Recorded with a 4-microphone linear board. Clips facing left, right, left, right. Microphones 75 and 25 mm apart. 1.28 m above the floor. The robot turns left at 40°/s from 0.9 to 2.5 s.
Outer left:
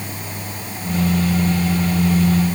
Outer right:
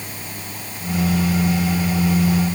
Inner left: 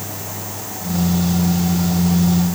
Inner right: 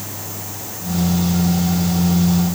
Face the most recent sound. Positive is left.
No sound to turn to.